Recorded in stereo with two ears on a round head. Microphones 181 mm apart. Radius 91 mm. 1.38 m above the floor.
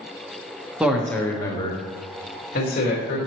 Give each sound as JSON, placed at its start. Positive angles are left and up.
{"t": 0.8, "sound": "a man speaking", "side_deg": -5, "distance_m": 1.0}